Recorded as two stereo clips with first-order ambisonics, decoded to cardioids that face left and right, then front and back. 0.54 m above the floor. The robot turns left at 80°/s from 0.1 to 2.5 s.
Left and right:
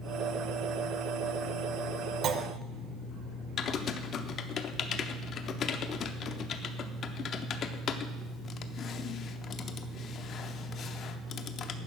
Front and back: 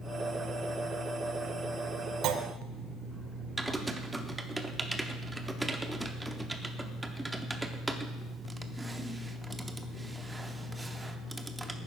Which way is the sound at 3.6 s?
100° left.